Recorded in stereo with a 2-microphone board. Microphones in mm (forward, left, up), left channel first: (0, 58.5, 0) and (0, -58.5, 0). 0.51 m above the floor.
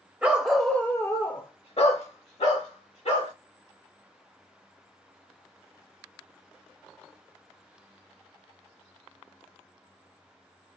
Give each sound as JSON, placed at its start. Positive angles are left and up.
{"t": 0.2, "sound": "a dog barking", "side_deg": -10, "distance_m": 0.7}